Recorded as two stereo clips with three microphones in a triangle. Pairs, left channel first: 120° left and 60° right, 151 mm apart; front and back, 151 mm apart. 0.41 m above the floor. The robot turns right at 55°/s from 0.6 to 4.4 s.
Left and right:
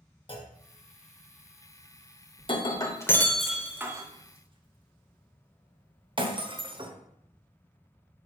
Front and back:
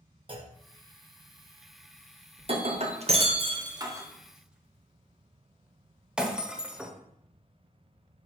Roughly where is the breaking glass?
Behind left.